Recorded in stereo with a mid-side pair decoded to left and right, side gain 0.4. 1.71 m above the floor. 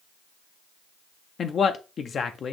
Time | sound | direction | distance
1.4 | a man speaking | 55° left | 0.6 m